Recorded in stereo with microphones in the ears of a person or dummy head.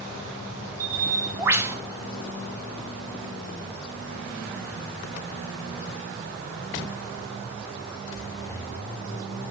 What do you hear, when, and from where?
0.8 s a bird: 20° right (ahead or behind), 0.6 m